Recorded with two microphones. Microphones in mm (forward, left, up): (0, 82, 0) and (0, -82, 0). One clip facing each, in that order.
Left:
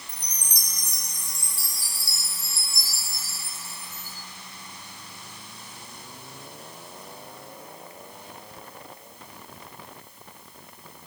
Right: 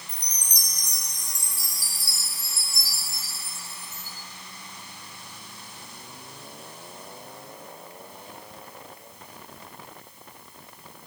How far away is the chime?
About 3.5 m.